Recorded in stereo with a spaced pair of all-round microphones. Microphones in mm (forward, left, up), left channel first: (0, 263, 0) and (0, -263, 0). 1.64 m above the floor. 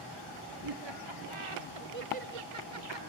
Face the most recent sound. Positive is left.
turn(degrees=-50)  # may be behind; listen again after turning